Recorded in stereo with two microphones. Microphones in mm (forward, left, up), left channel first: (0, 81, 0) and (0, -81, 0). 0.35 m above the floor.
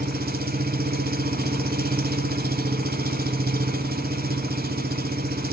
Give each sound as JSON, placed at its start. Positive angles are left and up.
{"t": 0.0, "sound": "an engine running", "side_deg": -70, "distance_m": 1.0}